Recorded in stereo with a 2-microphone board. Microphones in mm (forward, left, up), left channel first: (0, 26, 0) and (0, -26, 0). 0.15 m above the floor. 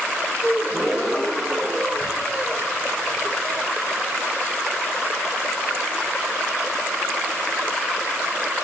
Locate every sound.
0.4 s a gasp: centre (ahead or behind), 1.6 m